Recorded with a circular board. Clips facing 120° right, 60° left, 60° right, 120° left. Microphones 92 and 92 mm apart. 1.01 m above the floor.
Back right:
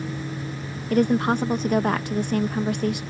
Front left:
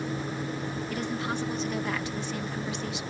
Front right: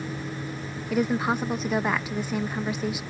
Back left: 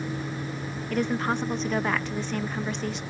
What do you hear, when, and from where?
0.9 s a woman speaking: 140° right